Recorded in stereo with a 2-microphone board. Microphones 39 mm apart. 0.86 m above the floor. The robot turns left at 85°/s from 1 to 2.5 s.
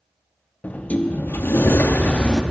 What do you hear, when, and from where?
0.6 s a sliding door: 135° left, 0.5 m; by 2.4 s 15° left, 0.5 m